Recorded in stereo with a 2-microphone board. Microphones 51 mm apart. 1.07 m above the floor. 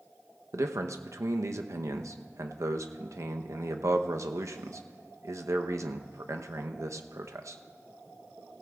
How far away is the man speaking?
About 0.7 m.